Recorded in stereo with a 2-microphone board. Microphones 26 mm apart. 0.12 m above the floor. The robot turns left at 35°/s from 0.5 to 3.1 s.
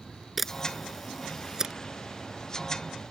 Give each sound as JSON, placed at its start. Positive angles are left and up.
{"t": 0.4, "sound": "a camera shutter", "side_deg": 0}